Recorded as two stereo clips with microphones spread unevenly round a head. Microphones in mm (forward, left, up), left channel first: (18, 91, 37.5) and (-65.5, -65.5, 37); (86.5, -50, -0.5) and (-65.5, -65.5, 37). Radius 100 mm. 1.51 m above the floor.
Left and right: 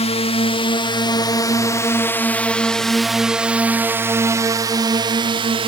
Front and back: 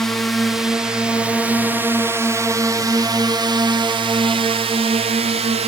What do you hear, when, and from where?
0.0 s a drone: 70° left; by 5.7 s 140° right